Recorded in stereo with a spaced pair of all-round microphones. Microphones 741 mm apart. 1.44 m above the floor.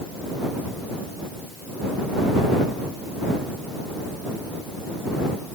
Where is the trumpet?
No trumpet in this recording.